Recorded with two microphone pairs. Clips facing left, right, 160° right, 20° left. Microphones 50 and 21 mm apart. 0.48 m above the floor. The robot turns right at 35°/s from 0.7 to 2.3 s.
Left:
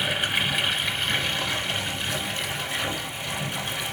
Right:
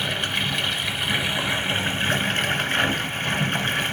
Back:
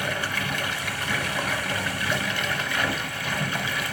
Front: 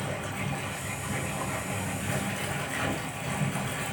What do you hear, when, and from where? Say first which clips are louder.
0.0 s running water: even, back 8 dB; straight behind, 1.3 m; by 3.9 s 125° right, 1.3 m